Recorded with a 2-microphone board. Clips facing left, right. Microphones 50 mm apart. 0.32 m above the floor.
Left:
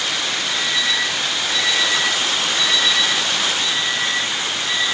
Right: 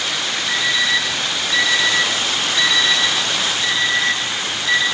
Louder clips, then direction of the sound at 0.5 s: Right 5 dB; 80° right.